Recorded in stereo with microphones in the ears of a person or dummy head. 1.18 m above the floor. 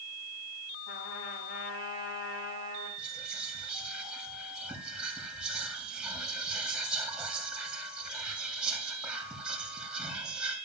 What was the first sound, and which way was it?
A trumpet, 60° left (ahead or behind).